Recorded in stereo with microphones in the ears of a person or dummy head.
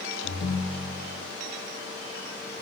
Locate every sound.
0.2 s a ringtone: 40° left (ahead or behind), 1.0 m